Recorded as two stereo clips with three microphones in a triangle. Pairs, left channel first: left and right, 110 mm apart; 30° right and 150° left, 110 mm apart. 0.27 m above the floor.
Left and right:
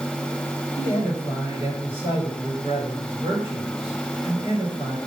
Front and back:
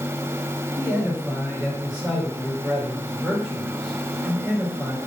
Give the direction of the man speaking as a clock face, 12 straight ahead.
4 o'clock.